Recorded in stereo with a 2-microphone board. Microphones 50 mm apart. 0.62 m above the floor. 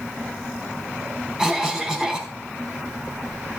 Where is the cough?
10° right (ahead or behind), 4.5 m.